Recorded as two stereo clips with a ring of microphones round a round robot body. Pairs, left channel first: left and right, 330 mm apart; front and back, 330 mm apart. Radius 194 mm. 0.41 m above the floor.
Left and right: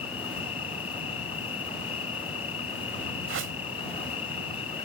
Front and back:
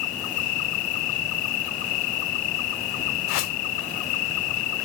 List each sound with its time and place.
0.0 s an insect: 15° left
3.3 s a whoosh: 30° right